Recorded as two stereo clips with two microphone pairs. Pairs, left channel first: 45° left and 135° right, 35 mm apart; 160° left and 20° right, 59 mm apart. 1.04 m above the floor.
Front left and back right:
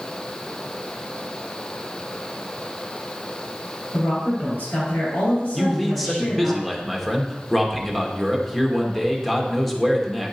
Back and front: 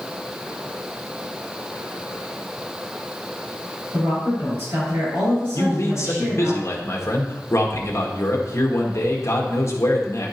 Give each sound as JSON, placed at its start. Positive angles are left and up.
{"t": 3.9, "sound": "a woman speaking", "azimuth_deg": 30, "distance_m": 5.0}
{"t": 5.5, "sound": "a man speaking", "azimuth_deg": 135, "distance_m": 1.8}